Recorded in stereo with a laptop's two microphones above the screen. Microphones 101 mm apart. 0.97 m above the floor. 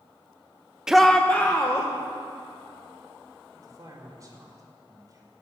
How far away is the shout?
About 0.7 m.